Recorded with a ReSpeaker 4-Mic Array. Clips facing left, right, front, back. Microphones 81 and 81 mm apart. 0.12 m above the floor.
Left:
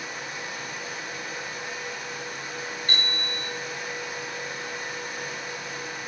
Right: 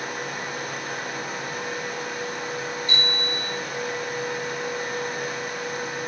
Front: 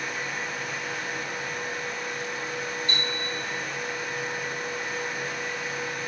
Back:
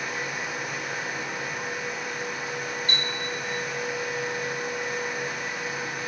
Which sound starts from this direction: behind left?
A bicycle bell, at 2.9 s.